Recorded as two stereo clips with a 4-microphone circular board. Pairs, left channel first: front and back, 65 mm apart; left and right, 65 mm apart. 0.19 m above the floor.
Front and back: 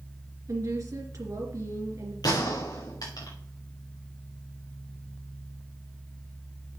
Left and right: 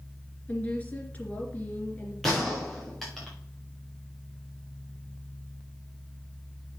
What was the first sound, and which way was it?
A woman speaking, 155° left.